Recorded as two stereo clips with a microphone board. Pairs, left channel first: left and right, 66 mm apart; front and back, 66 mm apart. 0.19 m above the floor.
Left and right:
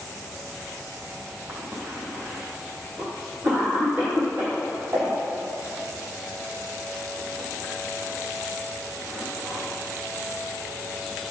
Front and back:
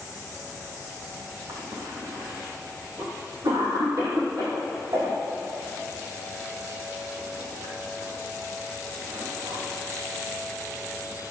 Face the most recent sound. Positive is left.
turn(degrees=-155)